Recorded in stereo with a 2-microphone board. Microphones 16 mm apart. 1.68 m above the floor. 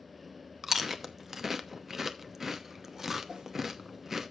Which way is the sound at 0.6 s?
25° right (ahead or behind).